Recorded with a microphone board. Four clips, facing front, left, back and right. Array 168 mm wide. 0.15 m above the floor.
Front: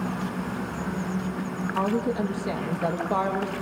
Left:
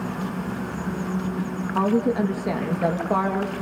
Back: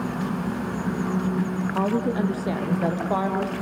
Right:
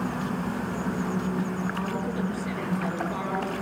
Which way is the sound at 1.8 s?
125° left.